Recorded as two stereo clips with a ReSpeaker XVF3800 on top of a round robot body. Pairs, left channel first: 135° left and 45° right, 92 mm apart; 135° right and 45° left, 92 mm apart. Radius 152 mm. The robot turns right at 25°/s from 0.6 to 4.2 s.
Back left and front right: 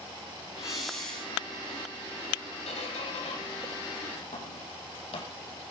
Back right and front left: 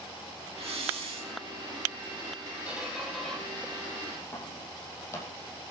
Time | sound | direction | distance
0.6 | a hiss | 40° left | 5 m
2.7 | a squeak | 125° left | 4.5 m